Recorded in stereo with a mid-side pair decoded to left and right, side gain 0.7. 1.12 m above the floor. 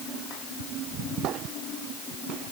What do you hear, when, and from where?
Only background noise.